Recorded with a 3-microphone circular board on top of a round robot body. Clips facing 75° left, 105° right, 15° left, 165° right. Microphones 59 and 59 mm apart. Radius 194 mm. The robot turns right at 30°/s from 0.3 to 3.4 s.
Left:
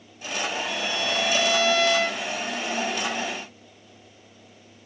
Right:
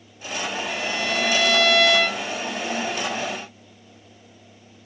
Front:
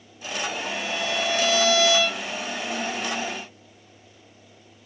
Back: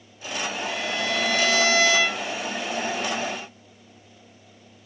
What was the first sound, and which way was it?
A violin, 150° right.